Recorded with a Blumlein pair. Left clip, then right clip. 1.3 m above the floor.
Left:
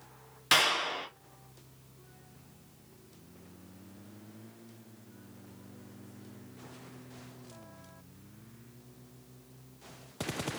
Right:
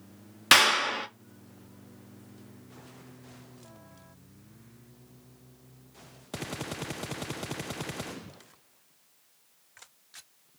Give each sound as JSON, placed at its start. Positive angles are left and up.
{"t": 0.5, "sound": "a clap", "azimuth_deg": -65, "distance_m": 0.6}